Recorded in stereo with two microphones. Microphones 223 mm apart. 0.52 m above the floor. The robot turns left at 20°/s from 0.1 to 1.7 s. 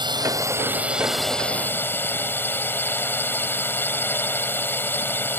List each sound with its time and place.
0.0 s a drone: 160° right; by 5.4 s 170° left